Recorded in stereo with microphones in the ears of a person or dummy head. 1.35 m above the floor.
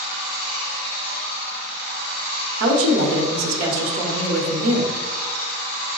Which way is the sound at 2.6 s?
80° right.